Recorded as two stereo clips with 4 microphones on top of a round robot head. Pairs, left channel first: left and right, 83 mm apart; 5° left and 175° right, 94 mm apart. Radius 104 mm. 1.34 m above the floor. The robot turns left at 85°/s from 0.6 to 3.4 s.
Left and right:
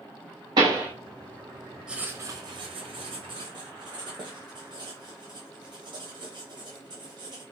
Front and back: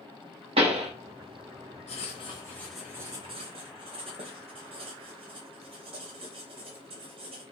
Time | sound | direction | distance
0.6 | a pop | 140° right | 0.7 m
1.9 | writing | 10° right | 0.6 m